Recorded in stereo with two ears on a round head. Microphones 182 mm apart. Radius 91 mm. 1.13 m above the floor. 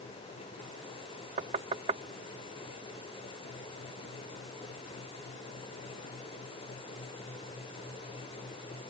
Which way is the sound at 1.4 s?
35° right (ahead or behind).